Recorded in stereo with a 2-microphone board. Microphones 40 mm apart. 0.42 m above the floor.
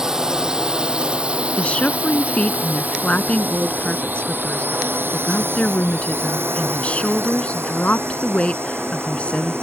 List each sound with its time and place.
0.0 s a drone: 15° right (ahead or behind); by 9.6 s 85° right
1.6 s a woman speaking: 30° left (ahead or behind)